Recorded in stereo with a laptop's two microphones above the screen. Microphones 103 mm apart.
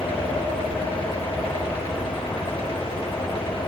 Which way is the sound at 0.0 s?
60° left (ahead or behind).